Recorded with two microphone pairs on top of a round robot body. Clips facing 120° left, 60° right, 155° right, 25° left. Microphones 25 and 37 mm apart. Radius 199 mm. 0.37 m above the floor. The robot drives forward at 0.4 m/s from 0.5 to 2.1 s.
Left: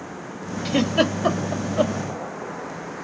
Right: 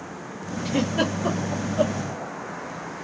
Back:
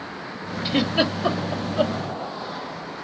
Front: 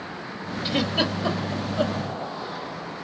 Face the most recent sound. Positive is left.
turn(degrees=145)